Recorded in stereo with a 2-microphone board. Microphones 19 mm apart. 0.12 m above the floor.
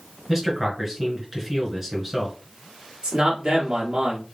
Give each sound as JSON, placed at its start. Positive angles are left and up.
{"t": 0.3, "sound": "a man speaking", "side_deg": -15, "distance_m": 1.3}
{"t": 3.0, "sound": "a man speaking", "side_deg": -55, "distance_m": 1.8}